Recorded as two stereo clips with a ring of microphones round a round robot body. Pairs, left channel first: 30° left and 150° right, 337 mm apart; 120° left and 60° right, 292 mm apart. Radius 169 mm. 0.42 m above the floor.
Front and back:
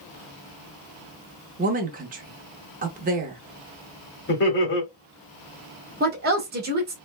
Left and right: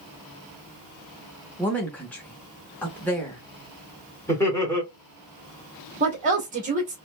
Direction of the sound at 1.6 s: 165° right.